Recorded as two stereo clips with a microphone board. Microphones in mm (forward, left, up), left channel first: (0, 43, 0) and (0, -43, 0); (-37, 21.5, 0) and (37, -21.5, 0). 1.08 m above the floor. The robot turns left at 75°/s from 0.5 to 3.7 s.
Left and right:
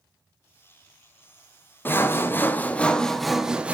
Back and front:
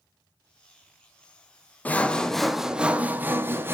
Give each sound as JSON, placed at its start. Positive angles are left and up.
{"t": 1.9, "sound": "sawing", "azimuth_deg": 105, "distance_m": 0.5}